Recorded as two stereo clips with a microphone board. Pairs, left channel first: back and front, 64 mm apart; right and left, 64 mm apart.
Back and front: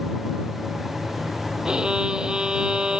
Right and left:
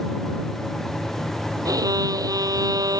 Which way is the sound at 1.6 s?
80° left.